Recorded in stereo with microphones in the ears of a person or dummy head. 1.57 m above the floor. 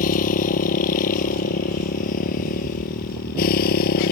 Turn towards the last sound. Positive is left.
turn(degrees=45)  # may be behind; listen again after turning